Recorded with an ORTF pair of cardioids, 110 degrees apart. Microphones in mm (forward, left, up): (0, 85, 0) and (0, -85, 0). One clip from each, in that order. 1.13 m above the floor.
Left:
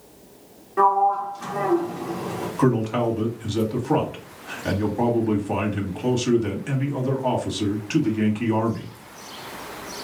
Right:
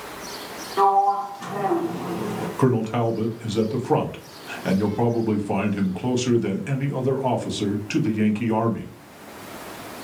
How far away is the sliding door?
About 0.9 m.